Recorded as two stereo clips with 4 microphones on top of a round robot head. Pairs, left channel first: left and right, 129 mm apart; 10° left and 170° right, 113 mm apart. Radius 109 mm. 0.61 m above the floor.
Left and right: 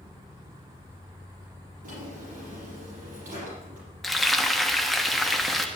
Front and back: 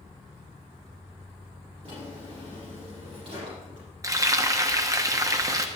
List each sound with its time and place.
1.8 s a drawer: 115° right, 5.5 m
4.0 s frying: straight behind, 1.3 m